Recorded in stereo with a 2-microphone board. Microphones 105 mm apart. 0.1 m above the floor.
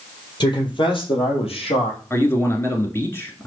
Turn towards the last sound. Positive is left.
turn(degrees=25)  # may be behind; listen again after turning